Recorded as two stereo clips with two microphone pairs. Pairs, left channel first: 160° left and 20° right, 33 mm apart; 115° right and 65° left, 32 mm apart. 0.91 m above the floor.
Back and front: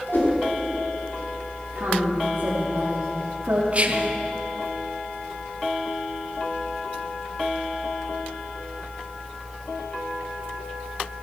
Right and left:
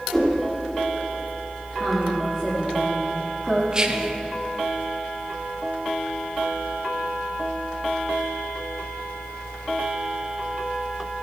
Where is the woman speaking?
30° right, 1.6 m.